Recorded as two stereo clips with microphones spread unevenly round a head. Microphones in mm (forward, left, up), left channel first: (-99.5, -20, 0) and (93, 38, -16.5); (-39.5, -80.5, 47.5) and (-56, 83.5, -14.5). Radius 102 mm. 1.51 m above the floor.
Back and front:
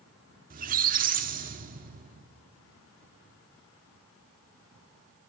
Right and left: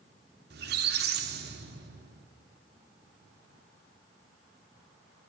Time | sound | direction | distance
0.5 | a squeak | 50° left | 1.3 m